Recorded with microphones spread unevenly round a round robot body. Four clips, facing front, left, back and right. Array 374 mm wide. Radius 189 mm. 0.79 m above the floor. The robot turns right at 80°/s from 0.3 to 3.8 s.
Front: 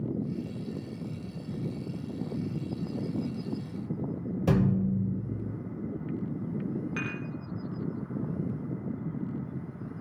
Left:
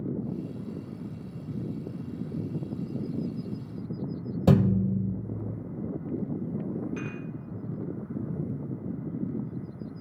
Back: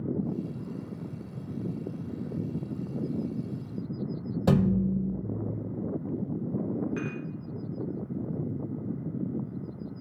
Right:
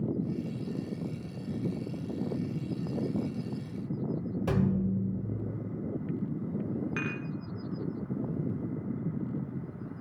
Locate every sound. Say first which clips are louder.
4.5 s a thud: left 7 dB, back 2 dB; 90° left, 1.1 m
7.0 s dishes clattering: right 1 dB, back 1 dB; 60° right, 1.5 m